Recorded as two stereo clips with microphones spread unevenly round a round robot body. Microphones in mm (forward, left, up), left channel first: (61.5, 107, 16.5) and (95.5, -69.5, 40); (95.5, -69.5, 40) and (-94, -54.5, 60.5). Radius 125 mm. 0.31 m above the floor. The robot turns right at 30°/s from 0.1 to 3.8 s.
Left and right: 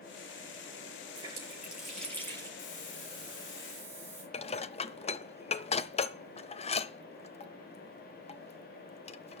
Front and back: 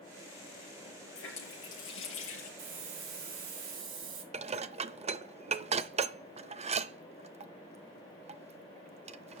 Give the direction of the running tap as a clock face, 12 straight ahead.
12 o'clock.